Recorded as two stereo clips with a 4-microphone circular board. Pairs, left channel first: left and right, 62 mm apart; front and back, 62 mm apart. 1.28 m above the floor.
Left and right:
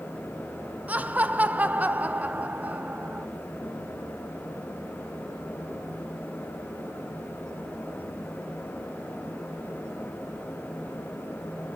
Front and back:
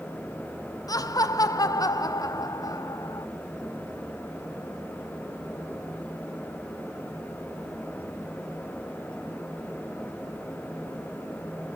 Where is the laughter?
25° right, 0.7 m.